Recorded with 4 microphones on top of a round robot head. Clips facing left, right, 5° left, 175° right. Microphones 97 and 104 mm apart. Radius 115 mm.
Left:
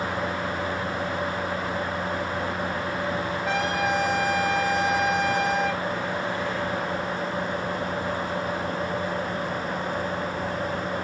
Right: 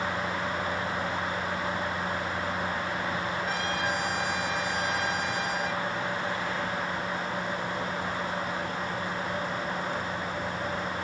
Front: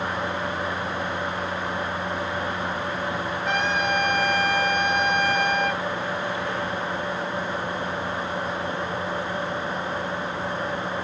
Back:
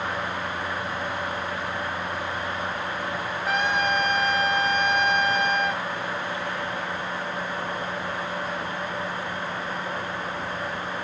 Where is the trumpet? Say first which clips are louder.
Left 5 dB, back 1 dB; 95° left, 4 m.